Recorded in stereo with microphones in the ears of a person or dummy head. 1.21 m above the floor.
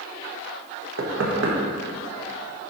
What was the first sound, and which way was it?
Knocking, 70° right (ahead or behind).